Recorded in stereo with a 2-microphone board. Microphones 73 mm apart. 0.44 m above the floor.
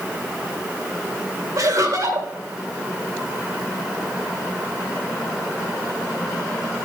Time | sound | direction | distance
1.6 | laughter | 55° right (ahead or behind) | 2.5 m